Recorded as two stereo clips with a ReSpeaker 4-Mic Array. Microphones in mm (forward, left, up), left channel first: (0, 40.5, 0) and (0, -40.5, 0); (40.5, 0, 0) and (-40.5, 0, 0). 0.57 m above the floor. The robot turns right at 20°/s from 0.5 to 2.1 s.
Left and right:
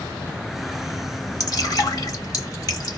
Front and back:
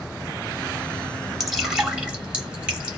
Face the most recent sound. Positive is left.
turn(degrees=110)